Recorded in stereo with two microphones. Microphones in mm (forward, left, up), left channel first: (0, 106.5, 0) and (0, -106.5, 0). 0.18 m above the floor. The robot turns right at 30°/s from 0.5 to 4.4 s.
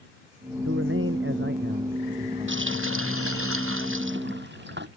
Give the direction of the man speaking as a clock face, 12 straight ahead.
3 o'clock.